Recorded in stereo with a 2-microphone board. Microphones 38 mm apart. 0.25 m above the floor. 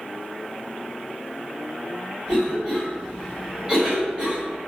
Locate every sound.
2.3 s a cough: 20° right (ahead or behind), 1.7 m